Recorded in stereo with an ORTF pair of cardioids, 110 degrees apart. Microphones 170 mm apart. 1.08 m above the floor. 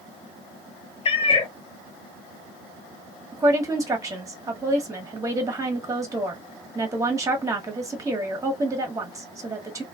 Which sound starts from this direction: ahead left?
A cat meowing, at 1.1 s.